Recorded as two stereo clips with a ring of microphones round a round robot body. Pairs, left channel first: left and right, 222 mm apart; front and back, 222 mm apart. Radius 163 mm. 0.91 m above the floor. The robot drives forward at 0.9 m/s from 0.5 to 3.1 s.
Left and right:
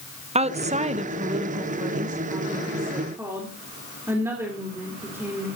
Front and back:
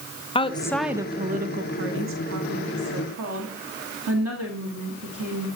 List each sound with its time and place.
0.3 s a woman speaking: 50° right, 0.8 m; by 5.5 s 170° right, 2 m